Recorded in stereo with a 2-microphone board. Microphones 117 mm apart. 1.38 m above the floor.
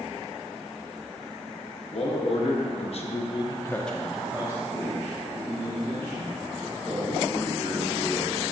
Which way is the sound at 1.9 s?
60° left (ahead or behind).